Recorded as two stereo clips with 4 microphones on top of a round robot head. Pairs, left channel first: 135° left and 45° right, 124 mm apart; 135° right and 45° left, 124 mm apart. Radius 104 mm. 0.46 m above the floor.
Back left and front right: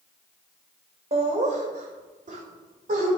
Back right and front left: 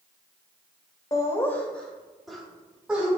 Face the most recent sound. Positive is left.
turn(degrees=-35)